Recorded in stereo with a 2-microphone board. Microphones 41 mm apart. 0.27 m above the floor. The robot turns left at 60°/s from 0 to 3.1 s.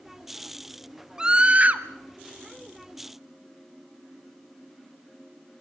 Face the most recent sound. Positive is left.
turn(degrees=-140)